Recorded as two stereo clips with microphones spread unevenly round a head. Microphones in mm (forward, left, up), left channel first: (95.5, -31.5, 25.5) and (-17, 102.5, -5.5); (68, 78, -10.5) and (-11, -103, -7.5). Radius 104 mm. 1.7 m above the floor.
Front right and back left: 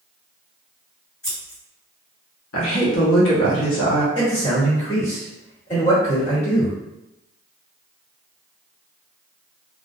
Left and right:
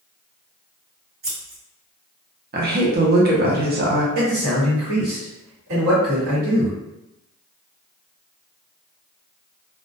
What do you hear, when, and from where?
1.2 s scissors: 105° right, 1.9 m
2.5 s a woman speaking: 70° right, 0.8 m
4.2 s a man speaking: 110° right, 1.4 m